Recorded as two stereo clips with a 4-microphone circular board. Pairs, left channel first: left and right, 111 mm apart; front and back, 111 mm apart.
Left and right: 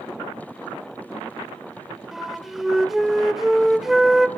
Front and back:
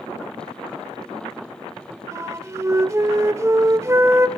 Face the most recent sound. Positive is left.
turn(degrees=-175)